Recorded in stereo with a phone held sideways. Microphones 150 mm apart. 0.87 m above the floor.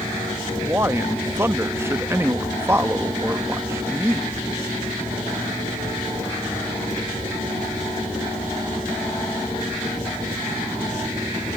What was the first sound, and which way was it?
A man speaking, 15° right (ahead or behind).